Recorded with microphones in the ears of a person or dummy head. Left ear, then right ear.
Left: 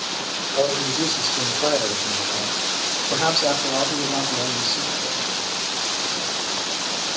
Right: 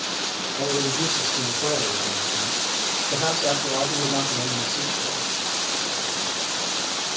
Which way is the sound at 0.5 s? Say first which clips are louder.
Left 4 dB; 60° left (ahead or behind).